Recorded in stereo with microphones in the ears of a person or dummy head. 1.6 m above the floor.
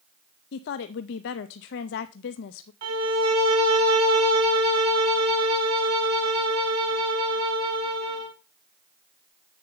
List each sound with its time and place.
0.5 s a woman speaking: 55° left (ahead or behind), 0.5 m
2.8 s a violin: 25° right (ahead or behind), 0.9 m